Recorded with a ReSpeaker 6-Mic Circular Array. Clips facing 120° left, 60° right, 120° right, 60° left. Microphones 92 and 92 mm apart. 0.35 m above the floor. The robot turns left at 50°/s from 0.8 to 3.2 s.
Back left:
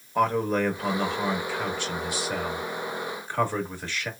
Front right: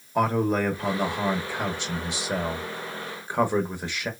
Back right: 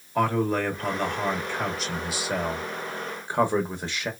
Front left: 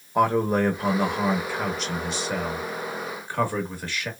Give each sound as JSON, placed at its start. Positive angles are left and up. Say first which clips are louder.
{"t": 0.1, "sound": "a man speaking", "louder": "even, front left 3 dB", "azimuth_deg": 15, "distance_m": 0.8}